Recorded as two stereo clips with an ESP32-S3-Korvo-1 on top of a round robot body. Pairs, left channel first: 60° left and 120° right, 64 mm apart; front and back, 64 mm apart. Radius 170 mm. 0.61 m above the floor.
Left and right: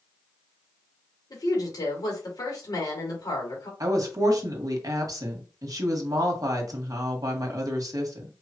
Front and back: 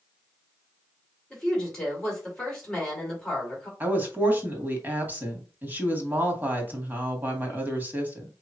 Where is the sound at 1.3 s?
80° left, 3 m.